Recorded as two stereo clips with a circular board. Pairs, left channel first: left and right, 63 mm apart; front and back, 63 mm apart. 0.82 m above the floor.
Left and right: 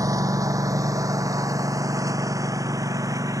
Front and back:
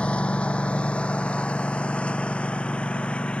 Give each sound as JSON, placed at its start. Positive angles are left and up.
{"t": 0.0, "sound": "a lawn mower", "azimuth_deg": -70}